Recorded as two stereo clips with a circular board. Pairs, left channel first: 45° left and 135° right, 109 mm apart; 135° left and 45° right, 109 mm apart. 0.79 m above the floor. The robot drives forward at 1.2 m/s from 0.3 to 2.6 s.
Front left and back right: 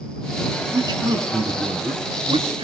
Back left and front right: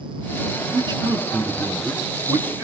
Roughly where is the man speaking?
Right.